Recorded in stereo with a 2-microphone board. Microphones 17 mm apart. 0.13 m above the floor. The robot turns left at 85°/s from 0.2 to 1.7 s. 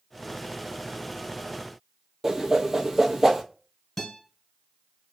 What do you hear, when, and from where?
2.2 s a whoosh: 25° right (ahead or behind), 0.6 m
4.0 s a guitar: 5° left (ahead or behind), 1.4 m